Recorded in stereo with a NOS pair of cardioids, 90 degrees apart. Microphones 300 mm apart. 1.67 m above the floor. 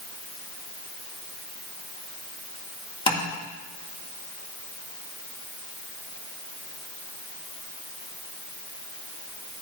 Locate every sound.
3.1 s tapping: 20° left, 2.5 m